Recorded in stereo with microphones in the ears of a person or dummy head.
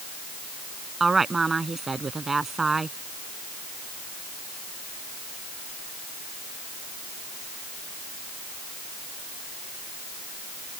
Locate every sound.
1.0 s a woman speaking: 5° right (ahead or behind)